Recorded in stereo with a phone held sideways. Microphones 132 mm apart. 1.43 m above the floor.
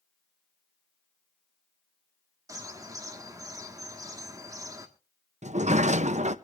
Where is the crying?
I don't hear crying.